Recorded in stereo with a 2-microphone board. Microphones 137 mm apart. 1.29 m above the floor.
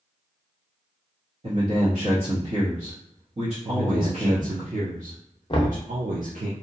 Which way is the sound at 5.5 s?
35° left (ahead or behind).